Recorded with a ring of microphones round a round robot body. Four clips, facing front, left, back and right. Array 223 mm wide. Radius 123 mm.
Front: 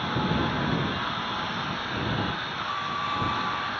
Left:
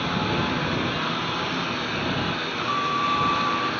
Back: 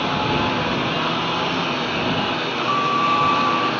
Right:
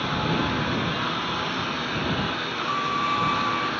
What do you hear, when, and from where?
0.0 s a lawn mower: 175° left
2.7 s a violin: 165° right